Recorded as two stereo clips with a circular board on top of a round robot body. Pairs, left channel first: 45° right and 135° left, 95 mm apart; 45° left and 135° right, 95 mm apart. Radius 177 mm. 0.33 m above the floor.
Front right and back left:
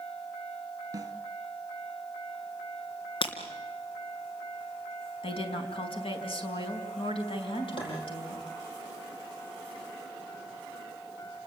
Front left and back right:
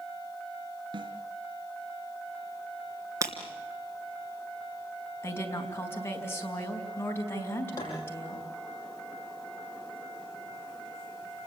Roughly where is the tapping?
Ahead.